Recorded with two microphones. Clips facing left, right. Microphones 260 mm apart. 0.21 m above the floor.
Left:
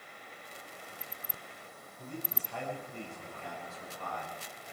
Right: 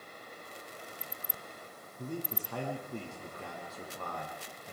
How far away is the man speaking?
About 8.5 m.